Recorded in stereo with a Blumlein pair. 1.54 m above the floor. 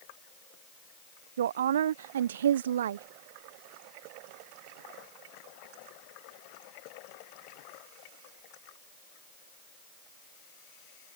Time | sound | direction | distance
1.4 | a woman speaking | 60° right | ?